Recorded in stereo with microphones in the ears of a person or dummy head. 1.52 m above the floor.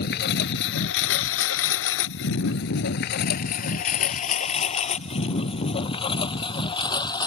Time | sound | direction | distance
0.0 | a lawn mower | 60° left (ahead or behind) | ?